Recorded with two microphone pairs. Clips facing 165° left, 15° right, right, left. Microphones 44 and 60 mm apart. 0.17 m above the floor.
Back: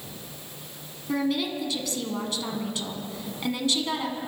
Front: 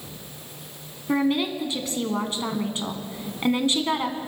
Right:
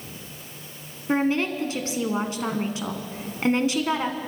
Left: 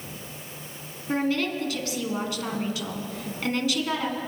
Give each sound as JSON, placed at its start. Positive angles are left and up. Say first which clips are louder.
{"t": 1.1, "sound": "a woman speaking", "louder": "front 4 dB, right 3 dB", "azimuth_deg": -45, "distance_m": 1.4}